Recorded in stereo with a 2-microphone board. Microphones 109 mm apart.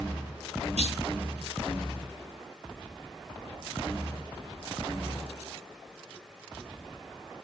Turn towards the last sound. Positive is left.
turn(degrees=-75)  # may be behind; listen again after turning